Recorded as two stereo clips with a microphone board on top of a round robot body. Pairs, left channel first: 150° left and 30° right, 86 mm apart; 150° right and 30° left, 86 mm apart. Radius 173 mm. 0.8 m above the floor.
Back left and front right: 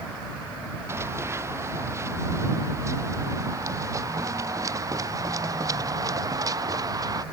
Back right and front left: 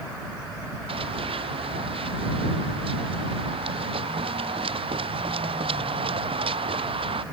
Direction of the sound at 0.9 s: 30° left.